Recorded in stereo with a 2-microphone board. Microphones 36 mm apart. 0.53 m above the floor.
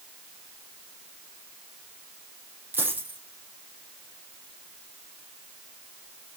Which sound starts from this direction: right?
A dropped coin, at 2.7 s.